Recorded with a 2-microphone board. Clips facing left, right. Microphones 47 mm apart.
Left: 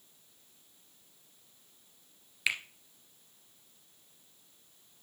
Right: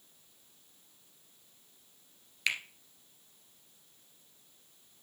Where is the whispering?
No whispering in this recording.